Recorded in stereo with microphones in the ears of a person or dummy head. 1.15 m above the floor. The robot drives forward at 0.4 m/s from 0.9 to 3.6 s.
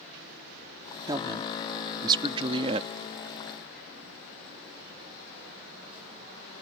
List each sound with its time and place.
1.1 s a woman speaking: 20° right (ahead or behind); by 2.9 s 25° right (ahead or behind)